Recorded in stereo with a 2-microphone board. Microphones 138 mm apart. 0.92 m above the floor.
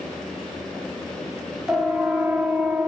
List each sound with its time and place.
1.7 s a siren: 5° right (ahead or behind), 2.5 m; by 2.9 s 10° right (ahead or behind), 1.7 m